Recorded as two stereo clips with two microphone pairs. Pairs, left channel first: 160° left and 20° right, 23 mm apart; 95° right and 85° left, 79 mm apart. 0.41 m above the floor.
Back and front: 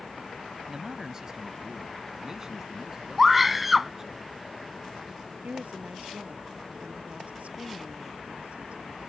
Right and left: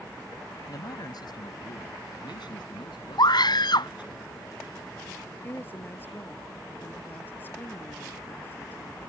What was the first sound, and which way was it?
A man speaking, 80° right.